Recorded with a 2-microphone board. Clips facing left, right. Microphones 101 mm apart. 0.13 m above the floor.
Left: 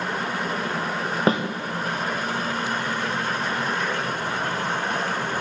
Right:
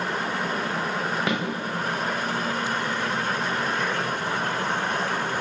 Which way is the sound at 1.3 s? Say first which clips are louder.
Left 8 dB; 35° left (ahead or behind).